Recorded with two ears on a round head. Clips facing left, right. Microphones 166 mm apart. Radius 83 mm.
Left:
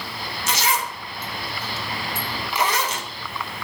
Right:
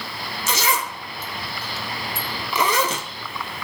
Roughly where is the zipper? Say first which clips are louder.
Right 1 dB; right.